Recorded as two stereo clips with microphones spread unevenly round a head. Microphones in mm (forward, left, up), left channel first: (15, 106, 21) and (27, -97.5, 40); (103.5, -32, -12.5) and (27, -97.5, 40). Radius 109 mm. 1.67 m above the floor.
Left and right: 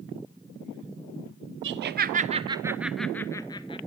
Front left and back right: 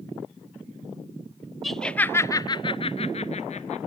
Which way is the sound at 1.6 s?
55° right.